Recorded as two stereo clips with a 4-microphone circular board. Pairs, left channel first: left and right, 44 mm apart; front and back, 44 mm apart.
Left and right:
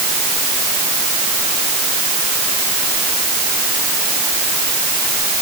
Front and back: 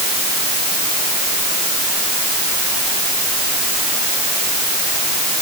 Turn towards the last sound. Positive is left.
No sound to turn to.